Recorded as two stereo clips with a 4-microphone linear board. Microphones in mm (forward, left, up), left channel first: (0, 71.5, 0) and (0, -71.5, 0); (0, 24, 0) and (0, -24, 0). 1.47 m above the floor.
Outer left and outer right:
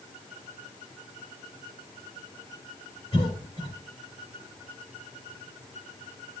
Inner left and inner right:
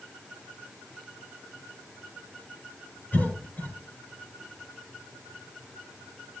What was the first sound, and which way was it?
A cough, 45° left (ahead or behind).